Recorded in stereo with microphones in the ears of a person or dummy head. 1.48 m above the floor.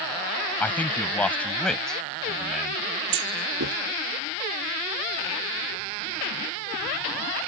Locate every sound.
0.6 s a man speaking: 10° left (ahead or behind); by 2.8 s centre (ahead or behind)
3.1 s a clunk: 65° right (ahead or behind)